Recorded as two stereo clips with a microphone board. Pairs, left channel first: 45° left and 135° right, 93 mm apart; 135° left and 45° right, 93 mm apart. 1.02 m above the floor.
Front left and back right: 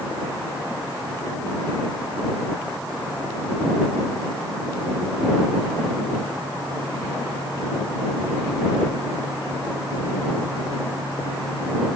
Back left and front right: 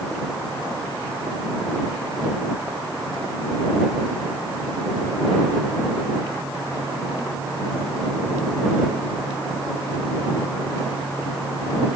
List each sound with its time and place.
Only background noise.